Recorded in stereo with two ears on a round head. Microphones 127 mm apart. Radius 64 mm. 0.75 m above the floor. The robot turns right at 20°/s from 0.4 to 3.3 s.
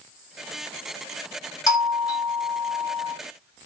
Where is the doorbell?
25° left (ahead or behind), 1.5 m; by 3.1 s 35° left (ahead or behind), 1.5 m.